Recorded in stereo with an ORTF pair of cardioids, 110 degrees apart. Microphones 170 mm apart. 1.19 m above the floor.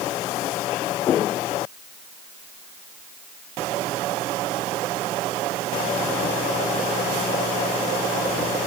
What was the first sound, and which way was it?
Only background noise.